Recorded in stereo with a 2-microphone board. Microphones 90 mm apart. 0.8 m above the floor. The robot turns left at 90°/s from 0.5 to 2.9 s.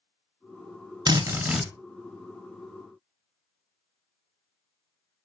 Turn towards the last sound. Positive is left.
turn(degrees=70)